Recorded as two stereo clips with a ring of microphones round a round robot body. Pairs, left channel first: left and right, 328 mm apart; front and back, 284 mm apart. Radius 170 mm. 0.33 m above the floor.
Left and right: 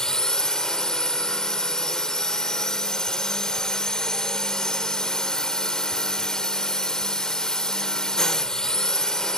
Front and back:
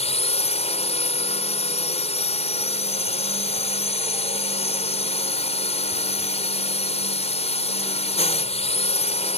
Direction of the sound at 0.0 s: 5° left.